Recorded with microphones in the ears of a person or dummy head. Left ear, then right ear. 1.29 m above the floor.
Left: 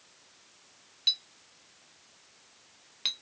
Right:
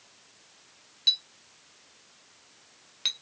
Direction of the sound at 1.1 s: Centre (ahead or behind).